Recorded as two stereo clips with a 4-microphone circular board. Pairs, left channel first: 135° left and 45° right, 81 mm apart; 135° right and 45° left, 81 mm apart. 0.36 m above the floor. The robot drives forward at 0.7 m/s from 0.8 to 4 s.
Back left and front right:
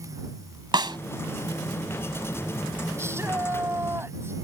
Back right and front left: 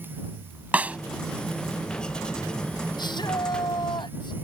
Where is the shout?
105° right.